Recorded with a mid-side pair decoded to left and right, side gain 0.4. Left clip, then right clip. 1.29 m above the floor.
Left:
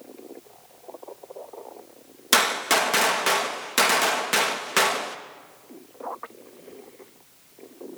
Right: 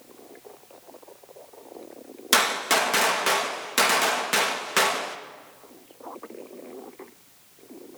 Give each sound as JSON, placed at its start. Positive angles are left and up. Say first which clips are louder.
{"t": 2.3, "sound": "a gunshot", "louder": "left 1 dB", "azimuth_deg": 10, "distance_m": 2.0}